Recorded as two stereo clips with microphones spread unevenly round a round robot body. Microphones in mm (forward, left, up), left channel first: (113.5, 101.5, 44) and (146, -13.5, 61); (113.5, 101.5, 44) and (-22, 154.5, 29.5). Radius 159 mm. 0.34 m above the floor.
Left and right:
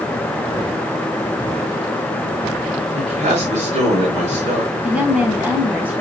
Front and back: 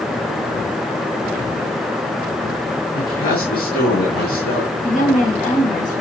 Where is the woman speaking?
5° left, 4 m.